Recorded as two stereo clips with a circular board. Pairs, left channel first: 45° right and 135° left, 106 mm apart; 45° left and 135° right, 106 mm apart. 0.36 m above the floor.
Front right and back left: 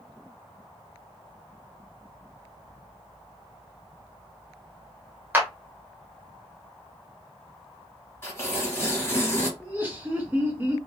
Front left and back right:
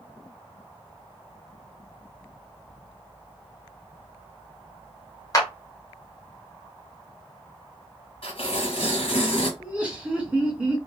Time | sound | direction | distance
5.3 | a clap | 75° left | 0.7 m
8.2 | tearing paper | 20° left | 1.3 m
9.6 | laughter | 170° left | 0.9 m